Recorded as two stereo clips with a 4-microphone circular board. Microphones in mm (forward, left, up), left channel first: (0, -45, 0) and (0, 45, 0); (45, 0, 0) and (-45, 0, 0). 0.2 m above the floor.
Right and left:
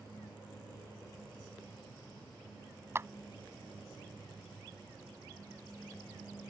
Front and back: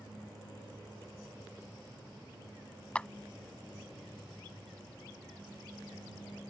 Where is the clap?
65° left.